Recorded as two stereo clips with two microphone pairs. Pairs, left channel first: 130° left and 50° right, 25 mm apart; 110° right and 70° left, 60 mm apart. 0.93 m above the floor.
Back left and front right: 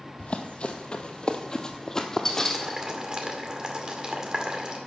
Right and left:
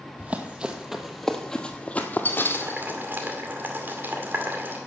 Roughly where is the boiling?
Ahead.